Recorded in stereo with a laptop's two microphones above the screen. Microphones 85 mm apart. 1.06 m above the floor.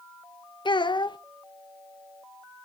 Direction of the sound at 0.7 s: 65° left (ahead or behind).